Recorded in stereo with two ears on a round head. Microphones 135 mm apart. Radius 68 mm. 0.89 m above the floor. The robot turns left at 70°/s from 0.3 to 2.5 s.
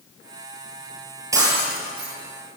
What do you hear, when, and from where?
1.3 s breaking glass: 20° right, 9 m; by 2.1 s 75° right, 9 m